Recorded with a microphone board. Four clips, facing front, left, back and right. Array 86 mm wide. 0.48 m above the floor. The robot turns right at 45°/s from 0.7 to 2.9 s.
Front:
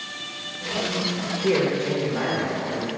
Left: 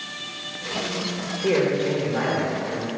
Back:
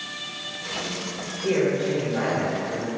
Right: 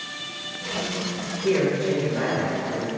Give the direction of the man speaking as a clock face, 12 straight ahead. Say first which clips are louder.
Left 1 dB, even; 10 o'clock.